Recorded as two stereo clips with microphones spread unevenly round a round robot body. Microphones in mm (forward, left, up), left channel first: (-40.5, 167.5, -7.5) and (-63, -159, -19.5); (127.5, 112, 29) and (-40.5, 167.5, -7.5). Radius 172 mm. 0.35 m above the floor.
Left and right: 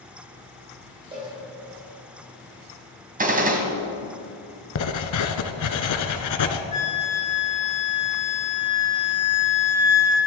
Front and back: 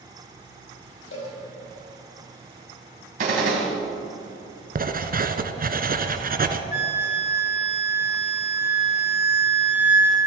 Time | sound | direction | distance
1.1 | a cowbell | 15° right | 6 m
3.2 | a gunshot | 155° right | 2.5 m
4.8 | writing | 120° left | 1.3 m
6.7 | a flute | 15° left | 5 m